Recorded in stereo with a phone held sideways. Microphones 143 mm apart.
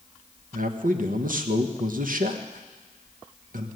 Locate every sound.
0.5 s a man speaking: 70° right (ahead or behind), 1.2 m